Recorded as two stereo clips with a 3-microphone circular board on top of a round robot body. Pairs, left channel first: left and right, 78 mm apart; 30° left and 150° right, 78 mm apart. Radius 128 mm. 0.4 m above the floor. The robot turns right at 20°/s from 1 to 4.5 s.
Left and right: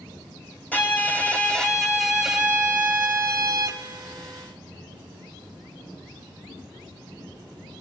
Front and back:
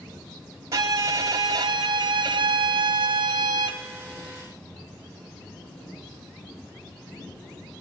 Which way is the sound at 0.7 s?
160° left.